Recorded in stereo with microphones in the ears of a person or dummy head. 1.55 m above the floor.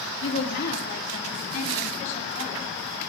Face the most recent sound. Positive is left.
turn(degrees=35)  # may be behind; listen again after turning